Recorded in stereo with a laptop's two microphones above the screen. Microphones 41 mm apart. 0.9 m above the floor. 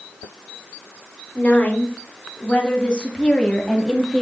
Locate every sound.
1.4 s a woman speaking: 40° left (ahead or behind), 3.5 m; by 4.2 s centre (ahead or behind), 2 m